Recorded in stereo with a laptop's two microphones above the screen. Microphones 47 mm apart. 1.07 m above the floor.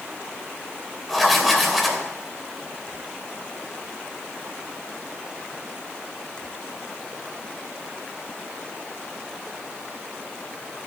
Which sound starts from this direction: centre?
Writing, at 1.1 s.